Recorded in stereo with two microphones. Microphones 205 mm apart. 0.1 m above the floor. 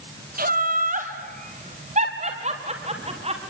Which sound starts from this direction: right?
Laughter, at 0.4 s.